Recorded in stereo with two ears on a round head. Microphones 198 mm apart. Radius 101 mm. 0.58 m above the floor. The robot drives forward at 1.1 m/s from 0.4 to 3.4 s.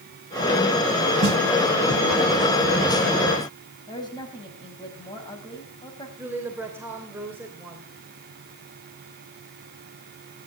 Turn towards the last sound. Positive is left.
turn(degrees=-10)  # may be behind; listen again after turning